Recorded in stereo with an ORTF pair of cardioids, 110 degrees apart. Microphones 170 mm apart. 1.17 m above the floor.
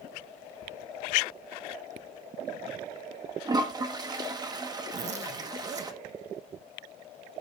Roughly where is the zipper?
Ahead right.